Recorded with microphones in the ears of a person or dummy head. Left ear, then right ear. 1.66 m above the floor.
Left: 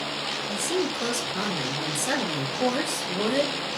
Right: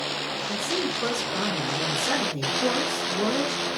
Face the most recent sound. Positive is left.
turn(degrees=40)  # may be behind; listen again after turning